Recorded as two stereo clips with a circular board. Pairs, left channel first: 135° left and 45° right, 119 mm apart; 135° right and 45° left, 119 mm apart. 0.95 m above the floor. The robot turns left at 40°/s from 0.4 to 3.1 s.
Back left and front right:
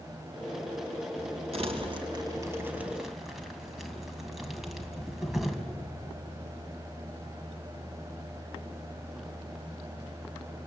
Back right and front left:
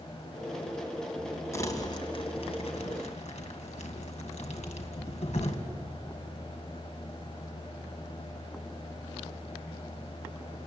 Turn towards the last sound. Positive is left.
turn(degrees=-135)